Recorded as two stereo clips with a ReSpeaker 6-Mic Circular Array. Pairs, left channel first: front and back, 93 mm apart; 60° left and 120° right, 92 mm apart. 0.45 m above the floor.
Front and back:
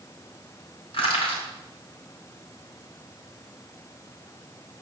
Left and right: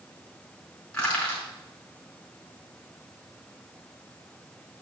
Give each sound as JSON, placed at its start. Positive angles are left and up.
{"t": 0.9, "sound": "crushing", "azimuth_deg": -20, "distance_m": 4.5}